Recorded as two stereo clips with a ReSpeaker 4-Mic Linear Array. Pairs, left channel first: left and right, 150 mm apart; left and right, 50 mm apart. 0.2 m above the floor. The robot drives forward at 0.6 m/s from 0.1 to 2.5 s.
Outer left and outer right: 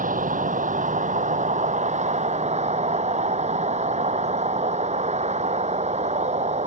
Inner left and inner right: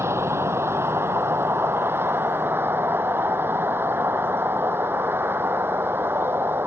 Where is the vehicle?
60° right (ahead or behind); by 6.7 s 50° right (ahead or behind).